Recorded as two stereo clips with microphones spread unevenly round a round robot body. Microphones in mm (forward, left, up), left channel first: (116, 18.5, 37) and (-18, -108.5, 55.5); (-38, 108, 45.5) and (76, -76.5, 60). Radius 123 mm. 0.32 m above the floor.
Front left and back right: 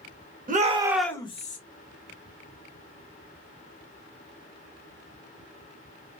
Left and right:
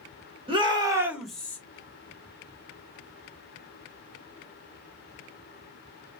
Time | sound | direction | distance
0.5 | a shout | 115° right | 1.1 m